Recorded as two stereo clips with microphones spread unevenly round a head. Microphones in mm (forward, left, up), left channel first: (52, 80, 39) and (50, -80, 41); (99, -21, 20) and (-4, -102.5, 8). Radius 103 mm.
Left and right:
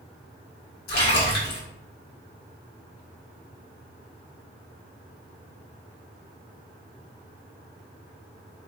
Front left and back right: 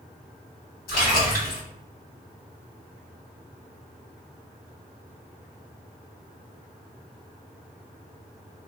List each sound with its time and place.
0.9 s a splash: 65° left, 1.3 m